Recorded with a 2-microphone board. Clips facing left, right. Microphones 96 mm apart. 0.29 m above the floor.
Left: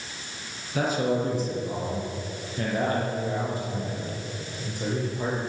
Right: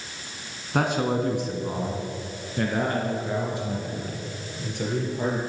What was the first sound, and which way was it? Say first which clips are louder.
A man speaking: right 1 dB; 60° right (ahead or behind).